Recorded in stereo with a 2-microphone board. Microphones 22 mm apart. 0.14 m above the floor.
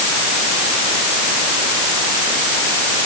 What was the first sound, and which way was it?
Only background noise.